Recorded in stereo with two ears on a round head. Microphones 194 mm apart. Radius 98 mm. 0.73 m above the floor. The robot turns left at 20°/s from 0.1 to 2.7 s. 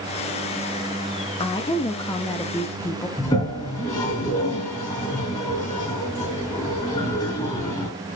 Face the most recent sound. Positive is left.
turn(degrees=15)  # may be behind; listen again after turning